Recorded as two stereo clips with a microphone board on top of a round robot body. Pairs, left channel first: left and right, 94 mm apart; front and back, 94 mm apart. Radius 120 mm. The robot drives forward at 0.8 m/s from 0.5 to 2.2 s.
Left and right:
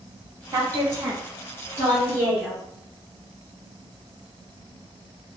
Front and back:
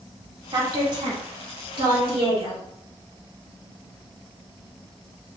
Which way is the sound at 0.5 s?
145° right.